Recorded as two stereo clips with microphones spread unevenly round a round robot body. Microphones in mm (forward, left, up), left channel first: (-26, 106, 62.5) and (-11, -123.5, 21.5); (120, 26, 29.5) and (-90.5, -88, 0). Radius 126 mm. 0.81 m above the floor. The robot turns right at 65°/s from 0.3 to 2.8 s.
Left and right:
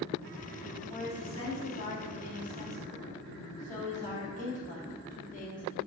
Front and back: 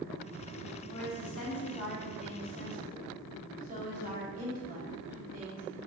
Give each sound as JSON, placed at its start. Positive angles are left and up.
{"t": 0.9, "sound": "a woman speaking", "azimuth_deg": 30, "distance_m": 2.5}